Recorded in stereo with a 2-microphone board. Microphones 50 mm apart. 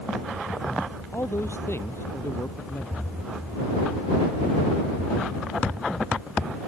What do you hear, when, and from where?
1.1 s a man speaking: 65° left (ahead or behind)